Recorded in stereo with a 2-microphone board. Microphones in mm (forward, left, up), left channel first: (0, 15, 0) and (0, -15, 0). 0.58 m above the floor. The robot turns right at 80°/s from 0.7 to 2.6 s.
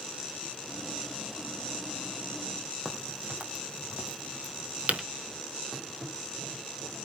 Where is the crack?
55° right (ahead or behind), 4 m.